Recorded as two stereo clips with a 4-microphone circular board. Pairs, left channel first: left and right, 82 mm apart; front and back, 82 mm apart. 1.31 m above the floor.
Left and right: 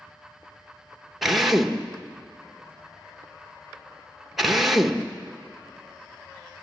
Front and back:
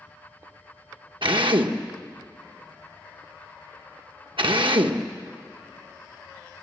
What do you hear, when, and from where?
1.2 s a drill: 175° right, 1.1 m